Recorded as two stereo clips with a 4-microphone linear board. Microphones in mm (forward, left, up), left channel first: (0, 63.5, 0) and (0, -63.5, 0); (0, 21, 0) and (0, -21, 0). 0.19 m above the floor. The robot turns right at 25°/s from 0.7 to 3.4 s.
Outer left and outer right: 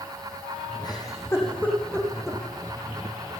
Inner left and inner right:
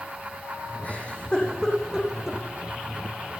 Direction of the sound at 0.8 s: 35° left (ahead or behind).